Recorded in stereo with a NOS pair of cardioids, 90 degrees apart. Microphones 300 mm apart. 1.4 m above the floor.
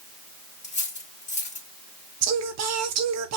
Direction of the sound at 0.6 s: 25° left.